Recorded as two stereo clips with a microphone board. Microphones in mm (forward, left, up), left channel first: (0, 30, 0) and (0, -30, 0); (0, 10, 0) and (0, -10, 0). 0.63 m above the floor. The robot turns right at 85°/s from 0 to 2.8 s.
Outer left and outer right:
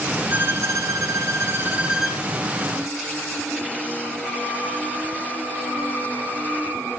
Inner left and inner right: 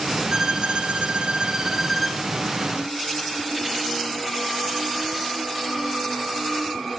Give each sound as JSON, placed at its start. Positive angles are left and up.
{"t": 0.3, "sound": "a violin", "azimuth_deg": -150, "distance_m": 1.9}